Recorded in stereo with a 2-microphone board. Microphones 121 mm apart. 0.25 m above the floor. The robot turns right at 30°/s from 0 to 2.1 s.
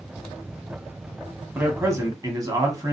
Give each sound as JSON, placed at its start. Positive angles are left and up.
{"t": 1.6, "sound": "a man speaking", "side_deg": -15, "distance_m": 2.0}